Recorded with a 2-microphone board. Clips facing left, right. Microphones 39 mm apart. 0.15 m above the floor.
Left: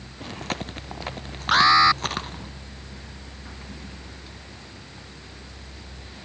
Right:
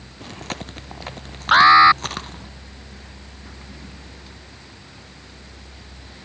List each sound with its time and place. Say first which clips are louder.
0.2 s chewing: left 1 dB; 5° left (ahead or behind)
1.5 s an alarm: right 6 dB; 25° right (ahead or behind)